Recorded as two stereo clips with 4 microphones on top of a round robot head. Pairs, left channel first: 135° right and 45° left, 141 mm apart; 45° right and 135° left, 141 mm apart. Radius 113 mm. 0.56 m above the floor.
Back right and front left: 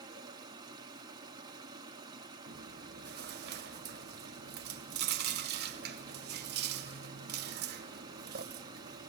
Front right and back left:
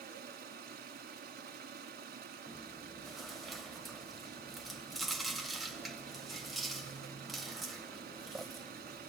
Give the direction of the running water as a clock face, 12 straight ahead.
8 o'clock.